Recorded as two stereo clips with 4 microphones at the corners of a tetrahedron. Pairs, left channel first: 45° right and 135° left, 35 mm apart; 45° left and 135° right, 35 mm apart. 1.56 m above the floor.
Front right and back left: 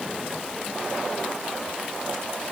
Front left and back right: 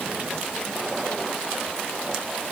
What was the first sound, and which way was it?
Only background noise.